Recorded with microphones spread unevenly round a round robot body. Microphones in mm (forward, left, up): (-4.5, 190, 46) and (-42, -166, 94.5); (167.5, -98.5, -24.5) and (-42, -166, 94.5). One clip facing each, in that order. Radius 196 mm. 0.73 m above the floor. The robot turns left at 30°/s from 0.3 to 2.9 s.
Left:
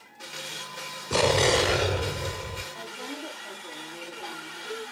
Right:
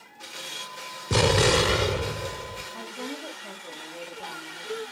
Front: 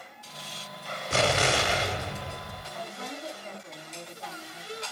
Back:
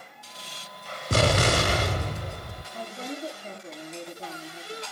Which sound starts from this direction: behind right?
An explosion, at 1.1 s.